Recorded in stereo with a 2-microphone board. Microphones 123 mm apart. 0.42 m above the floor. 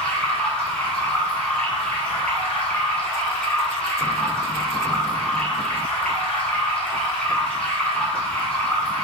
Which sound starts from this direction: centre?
Running water, at 0.0 s.